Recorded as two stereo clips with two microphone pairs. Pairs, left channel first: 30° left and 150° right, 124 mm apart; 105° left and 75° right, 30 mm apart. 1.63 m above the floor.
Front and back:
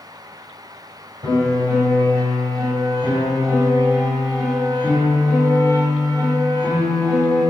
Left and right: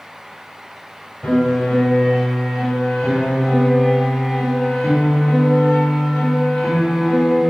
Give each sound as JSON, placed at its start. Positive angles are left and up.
{"t": 1.2, "sound": "a piano", "azimuth_deg": 160, "distance_m": 3.0}